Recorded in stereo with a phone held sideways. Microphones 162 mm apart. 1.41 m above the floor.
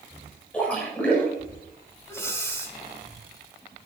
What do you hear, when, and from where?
0.5 s a splash: 5° left (ahead or behind), 8.5 m
2.1 s breathing: 15° left (ahead or behind), 3.5 m